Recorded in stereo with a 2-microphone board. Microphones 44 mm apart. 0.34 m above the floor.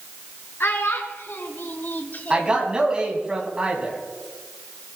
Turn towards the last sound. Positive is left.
turn(degrees=-20)  # may be behind; listen again after turning